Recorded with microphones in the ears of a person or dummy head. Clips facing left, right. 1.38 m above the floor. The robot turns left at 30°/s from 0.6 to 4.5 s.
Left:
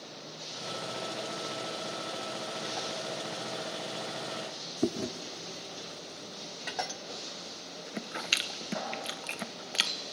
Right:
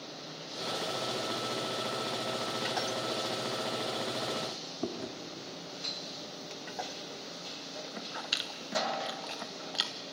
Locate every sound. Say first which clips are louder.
4.8 s chewing: left 6 dB; 30° left (ahead or behind), 0.8 m